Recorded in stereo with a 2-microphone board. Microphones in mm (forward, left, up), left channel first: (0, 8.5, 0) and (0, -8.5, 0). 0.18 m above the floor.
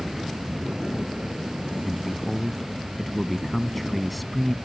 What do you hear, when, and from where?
0.0 s an insect: 70° right (ahead or behind)
1.8 s a man speaking: 5° left (ahead or behind)